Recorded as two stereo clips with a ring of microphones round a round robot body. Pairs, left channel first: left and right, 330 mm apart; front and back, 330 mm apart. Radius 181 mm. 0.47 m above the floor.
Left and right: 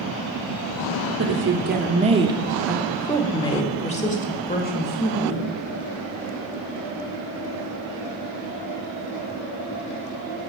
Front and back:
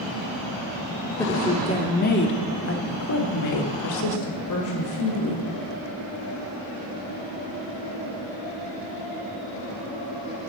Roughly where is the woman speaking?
Right.